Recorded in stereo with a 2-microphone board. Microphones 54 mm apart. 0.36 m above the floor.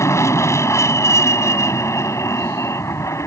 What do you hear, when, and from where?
0.0 s an aircraft: 60° left (ahead or behind)